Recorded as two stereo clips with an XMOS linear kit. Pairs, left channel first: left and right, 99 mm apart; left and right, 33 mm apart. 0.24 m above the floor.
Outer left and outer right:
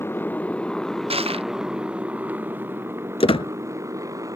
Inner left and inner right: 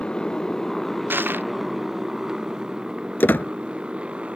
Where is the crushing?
90° right.